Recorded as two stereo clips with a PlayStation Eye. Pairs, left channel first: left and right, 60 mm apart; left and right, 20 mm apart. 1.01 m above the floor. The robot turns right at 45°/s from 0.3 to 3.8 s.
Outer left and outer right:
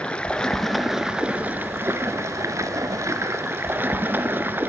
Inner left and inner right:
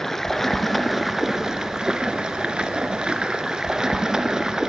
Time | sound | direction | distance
0.0 | running water | 160° left | 1.6 m